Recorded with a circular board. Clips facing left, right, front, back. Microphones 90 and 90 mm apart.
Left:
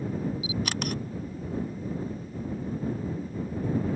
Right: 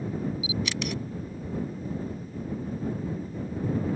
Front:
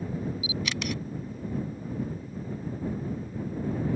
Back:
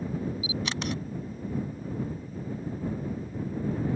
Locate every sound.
0.4 s a camera shutter: 125° left